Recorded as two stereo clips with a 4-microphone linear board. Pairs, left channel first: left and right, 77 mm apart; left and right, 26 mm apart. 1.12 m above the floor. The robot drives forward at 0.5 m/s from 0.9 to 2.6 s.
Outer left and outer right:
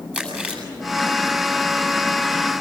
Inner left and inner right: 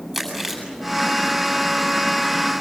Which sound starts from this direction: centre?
Chewing, at 0.1 s.